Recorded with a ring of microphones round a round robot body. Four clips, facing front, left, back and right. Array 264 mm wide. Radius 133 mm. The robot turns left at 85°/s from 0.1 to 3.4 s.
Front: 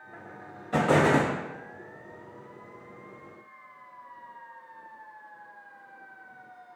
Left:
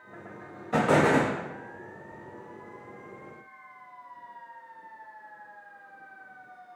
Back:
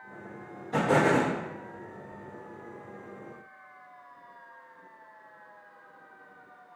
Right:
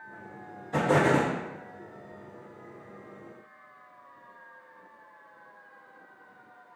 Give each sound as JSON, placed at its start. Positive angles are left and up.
{"t": 0.7, "sound": "an explosion", "azimuth_deg": 75, "distance_m": 1.1}